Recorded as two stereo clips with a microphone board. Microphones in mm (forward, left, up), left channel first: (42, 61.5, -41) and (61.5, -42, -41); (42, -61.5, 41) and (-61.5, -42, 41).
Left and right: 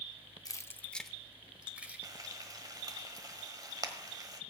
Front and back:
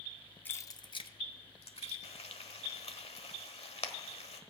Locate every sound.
0.5 s keys jangling: 55° left, 0.6 m; by 2.0 s 5° right, 1.6 m
2.0 s frying: 25° right, 1.4 m